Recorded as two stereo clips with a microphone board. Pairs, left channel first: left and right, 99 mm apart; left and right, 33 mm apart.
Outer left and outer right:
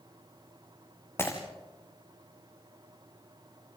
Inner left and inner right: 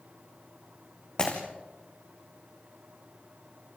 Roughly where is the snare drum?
No snare drum in this recording.